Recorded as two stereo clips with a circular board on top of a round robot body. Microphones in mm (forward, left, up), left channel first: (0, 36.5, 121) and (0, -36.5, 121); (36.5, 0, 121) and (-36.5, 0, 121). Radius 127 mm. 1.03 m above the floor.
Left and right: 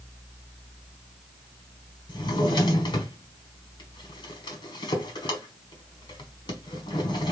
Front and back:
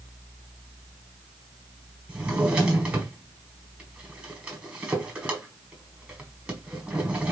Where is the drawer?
105° left, 1.3 m.